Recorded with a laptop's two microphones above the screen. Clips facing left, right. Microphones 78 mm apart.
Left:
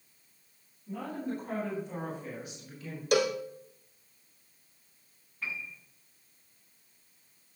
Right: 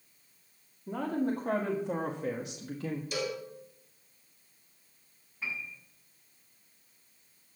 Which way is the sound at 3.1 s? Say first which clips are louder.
Left 12 dB; 65° left (ahead or behind).